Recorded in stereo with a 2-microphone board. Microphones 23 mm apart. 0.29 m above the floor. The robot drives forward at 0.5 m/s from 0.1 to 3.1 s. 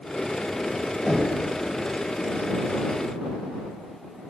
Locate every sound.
1.1 s knocking: 30° right (ahead or behind), 0.8 m